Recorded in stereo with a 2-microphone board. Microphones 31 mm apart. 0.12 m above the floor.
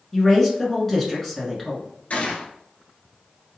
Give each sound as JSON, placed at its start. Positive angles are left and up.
{"t": 0.1, "sound": "a woman speaking", "side_deg": 10, "distance_m": 1.1}
{"t": 2.1, "sound": "a gunshot", "side_deg": 45, "distance_m": 0.8}